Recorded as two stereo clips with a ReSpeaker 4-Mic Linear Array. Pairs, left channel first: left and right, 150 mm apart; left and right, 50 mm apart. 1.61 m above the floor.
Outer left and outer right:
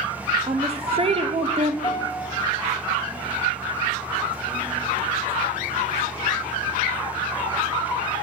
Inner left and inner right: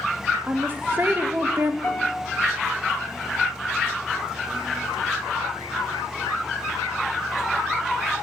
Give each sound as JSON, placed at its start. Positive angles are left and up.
{"t": 0.4, "sound": "a woman speaking", "side_deg": -40, "distance_m": 0.5}
{"t": 1.8, "sound": "a guitar", "side_deg": 25, "distance_m": 1.5}